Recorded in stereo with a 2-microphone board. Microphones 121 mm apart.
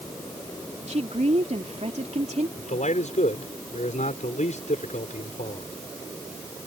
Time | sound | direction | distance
0.9 | a woman speaking | 65° right (ahead or behind) | ?
2.6 | a man speaking | 80° left | ?